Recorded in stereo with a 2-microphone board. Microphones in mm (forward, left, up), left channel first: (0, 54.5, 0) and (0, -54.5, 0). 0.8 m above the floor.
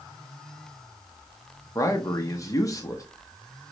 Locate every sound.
1.8 s a man speaking: 30° left (ahead or behind), 0.6 m